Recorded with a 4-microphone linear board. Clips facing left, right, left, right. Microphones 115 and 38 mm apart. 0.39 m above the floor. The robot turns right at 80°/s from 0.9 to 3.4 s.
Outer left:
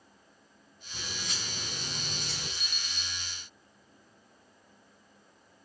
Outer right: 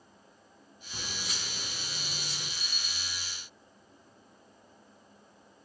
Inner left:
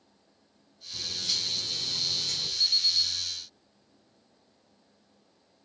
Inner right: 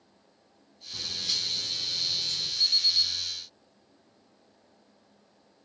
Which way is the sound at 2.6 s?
170° left.